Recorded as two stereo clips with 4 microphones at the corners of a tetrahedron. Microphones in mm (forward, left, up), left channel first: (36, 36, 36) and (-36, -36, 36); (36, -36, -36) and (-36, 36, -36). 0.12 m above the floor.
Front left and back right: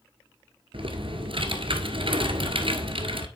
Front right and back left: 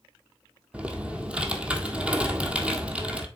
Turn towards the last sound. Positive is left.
turn(degrees=-150)